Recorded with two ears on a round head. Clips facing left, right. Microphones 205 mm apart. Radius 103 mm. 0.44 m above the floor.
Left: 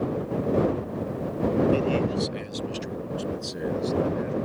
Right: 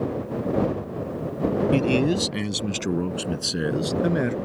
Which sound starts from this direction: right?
A man speaking, at 1.7 s.